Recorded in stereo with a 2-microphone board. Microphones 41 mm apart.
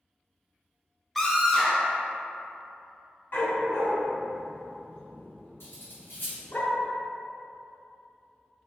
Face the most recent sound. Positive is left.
turn(degrees=75)  # may be behind; listen again after turning